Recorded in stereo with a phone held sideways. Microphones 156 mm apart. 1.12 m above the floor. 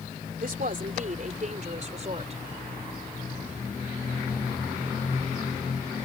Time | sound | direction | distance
0.4 | a woman speaking | 65° right (ahead or behind) | ?